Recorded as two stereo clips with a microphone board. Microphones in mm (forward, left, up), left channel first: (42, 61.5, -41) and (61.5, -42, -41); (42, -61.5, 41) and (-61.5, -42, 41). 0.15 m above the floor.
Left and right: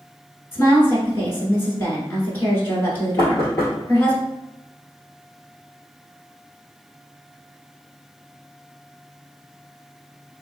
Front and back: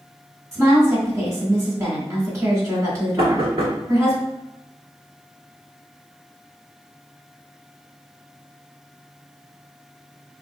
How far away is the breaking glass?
No breaking glass in this recording.